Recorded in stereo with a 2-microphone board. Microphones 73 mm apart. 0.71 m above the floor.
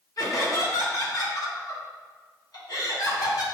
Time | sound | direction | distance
0.2 | laughter | 60° left (ahead or behind) | 2.5 m